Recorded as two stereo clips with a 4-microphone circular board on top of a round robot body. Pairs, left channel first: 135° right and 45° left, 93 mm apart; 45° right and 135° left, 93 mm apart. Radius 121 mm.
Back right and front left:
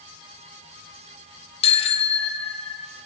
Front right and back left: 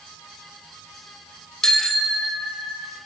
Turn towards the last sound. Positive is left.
turn(degrees=-130)